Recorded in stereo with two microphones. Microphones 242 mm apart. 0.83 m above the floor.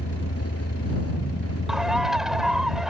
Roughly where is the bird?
Centre.